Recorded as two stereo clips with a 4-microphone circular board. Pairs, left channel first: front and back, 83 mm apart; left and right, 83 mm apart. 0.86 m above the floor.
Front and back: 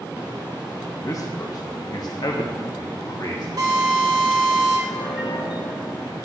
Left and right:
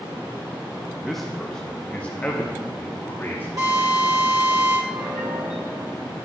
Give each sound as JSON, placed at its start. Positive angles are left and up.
{"t": 1.0, "sound": "a man speaking", "azimuth_deg": -5, "distance_m": 0.9}
{"t": 3.6, "sound": "a drill", "azimuth_deg": -130, "distance_m": 4.5}
{"t": 4.9, "sound": "a piano", "azimuth_deg": -20, "distance_m": 3.0}